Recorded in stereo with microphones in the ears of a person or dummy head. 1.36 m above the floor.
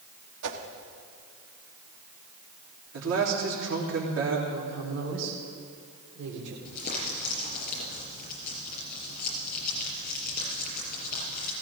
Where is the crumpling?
50° left (ahead or behind), 6 m.